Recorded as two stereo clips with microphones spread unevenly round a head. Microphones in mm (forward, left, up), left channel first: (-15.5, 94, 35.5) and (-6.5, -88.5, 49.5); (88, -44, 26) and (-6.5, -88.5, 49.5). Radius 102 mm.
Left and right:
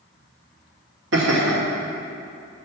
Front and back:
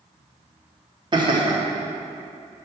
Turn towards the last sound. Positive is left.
turn(degrees=-105)